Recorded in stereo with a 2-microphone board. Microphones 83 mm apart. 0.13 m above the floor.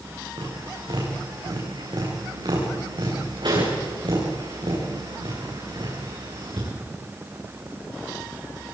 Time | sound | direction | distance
0.4 | tapping | 70° right (ahead or behind) | 9.5 m